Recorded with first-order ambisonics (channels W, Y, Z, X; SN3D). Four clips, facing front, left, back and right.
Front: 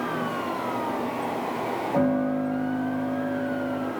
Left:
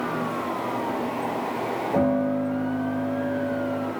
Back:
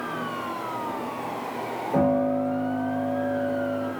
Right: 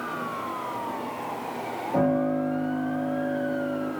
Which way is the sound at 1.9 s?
165° left.